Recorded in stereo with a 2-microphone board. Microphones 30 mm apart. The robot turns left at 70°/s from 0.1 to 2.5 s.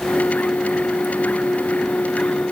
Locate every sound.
Only background noise.